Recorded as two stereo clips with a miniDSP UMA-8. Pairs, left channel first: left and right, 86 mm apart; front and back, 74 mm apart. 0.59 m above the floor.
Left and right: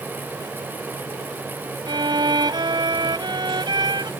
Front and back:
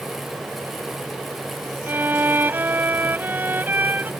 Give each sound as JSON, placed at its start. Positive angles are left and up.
{"t": 1.9, "sound": "a violin", "azimuth_deg": -115}